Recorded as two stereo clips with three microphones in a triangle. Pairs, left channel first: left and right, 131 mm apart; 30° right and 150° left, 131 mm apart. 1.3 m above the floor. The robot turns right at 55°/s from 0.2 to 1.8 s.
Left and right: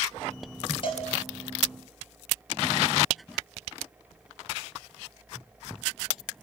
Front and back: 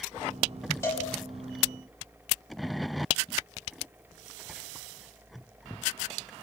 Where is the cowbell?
40° left, 6 m; by 1.1 s 55° left, 6 m.